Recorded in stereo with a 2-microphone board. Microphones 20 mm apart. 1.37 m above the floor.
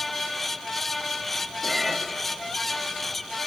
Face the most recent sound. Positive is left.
turn(degrees=-15)  # may be behind; listen again after turning